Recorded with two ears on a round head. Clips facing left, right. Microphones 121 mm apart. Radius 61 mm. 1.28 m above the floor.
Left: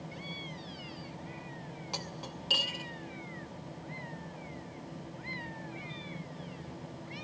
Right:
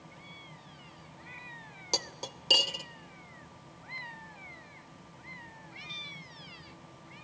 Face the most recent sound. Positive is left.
turn(degrees=-45)  # may be behind; listen again after turning